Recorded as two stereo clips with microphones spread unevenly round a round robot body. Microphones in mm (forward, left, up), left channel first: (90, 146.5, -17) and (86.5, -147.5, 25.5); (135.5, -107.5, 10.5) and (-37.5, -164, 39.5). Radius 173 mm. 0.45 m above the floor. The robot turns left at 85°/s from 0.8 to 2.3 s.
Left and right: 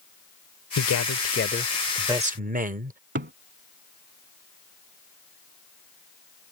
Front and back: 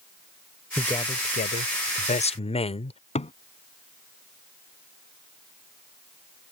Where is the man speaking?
100° left; by 3.0 s 25° right.